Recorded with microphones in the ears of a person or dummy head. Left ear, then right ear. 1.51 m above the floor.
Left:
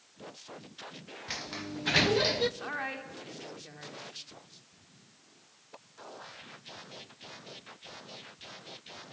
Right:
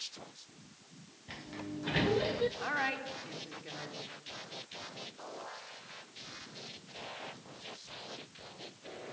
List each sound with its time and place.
1.3 s a sliding door: 45° left (ahead or behind), 0.8 m
2.6 s a woman speaking: 5° right (ahead or behind), 3.5 m